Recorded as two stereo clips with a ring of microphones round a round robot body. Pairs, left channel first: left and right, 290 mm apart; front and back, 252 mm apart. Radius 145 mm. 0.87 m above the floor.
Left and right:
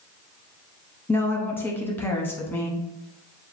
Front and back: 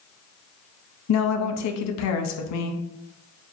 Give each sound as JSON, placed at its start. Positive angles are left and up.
{"t": 1.1, "sound": "a woman speaking", "azimuth_deg": 5, "distance_m": 0.7}